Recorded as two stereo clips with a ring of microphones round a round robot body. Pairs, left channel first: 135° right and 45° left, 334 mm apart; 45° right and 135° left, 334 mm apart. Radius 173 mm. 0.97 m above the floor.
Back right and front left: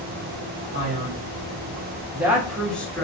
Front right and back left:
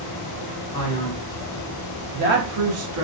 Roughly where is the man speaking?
Ahead.